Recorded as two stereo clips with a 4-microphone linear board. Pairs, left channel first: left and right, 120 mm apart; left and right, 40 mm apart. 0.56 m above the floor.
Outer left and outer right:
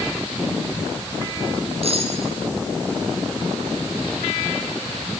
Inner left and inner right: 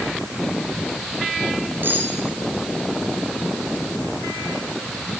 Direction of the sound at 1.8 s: 55° right (ahead or behind).